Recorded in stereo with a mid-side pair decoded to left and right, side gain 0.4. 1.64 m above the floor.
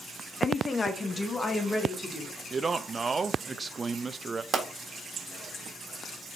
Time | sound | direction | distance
0.4 | a woman speaking | 40° left | 0.8 m
2.5 | a man speaking | 35° right | 0.5 m
4.5 | a pop | 45° right | 1.5 m